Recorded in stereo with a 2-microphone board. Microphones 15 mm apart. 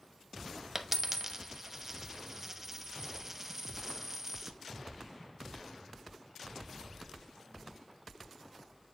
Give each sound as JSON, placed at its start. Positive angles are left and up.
{"t": 0.8, "sound": "a dropped coin", "side_deg": -20, "distance_m": 0.8}